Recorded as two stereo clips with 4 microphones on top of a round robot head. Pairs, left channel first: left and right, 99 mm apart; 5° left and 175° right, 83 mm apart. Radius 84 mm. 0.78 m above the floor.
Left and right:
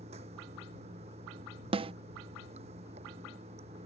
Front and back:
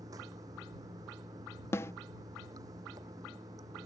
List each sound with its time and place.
0.0 s running water: 115° right
1.7 s a snare drum: 60° right